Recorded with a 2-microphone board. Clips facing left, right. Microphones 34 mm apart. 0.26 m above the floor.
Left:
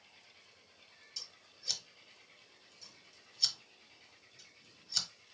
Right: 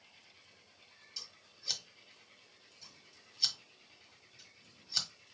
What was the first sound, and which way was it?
Scissors, 10° right (ahead or behind).